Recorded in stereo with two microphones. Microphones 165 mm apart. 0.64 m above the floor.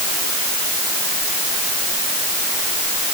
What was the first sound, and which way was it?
Only background noise.